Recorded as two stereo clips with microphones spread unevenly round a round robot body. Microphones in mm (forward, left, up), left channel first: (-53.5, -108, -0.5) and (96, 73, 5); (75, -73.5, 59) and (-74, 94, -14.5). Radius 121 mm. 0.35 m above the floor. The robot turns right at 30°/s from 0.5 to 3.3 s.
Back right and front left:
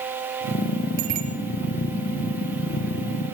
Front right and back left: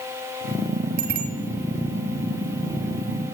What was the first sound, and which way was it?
A bicycle bell, 85° left.